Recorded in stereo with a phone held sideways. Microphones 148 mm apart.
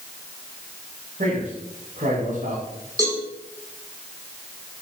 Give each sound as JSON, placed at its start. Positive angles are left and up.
{"t": 1.2, "sound": "a man speaking", "side_deg": -60, "distance_m": 8.0}
{"t": 3.0, "sound": "a cowbell", "side_deg": -25, "distance_m": 8.5}